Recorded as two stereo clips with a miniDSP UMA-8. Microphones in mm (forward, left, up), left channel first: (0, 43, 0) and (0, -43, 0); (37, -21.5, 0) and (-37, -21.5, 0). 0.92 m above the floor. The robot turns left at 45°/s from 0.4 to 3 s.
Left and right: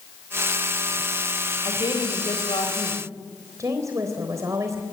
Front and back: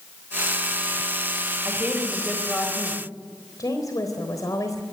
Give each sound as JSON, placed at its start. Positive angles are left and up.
{"t": 1.6, "sound": "a woman speaking", "azimuth_deg": 120, "distance_m": 4.5}
{"t": 3.6, "sound": "a woman speaking", "azimuth_deg": -40, "distance_m": 3.5}